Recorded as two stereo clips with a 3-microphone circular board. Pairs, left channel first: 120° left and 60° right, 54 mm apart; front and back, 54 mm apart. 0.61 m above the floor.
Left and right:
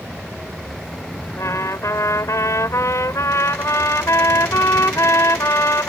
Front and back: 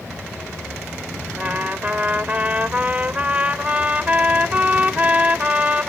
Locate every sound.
1.4 s a trumpet: 120° left